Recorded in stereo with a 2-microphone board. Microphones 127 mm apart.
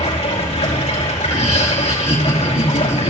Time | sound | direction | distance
0.0 | running water | 75° left (ahead or behind) | 4.5 m
1.2 | laughter | 60° left (ahead or behind) | 4 m